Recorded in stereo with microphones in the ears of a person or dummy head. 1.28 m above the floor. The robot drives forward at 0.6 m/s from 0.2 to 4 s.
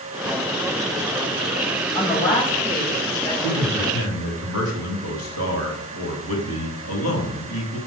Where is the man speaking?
75° left (ahead or behind), 2.5 m; by 7.8 s 85° left, 2.5 m.